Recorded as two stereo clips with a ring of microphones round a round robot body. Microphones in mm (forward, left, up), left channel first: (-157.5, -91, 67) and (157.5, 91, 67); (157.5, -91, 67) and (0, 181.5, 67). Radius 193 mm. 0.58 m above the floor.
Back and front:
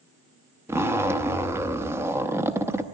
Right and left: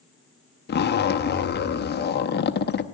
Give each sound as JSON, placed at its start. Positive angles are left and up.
{"t": 0.7, "sound": "a zipper", "azimuth_deg": -45, "distance_m": 0.8}